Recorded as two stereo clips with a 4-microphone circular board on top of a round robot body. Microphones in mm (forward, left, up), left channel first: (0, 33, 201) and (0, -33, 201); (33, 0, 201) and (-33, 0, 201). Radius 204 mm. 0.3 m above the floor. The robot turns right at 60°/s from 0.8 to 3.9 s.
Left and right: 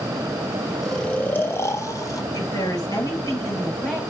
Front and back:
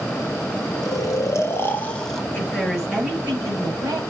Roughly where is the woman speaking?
Left.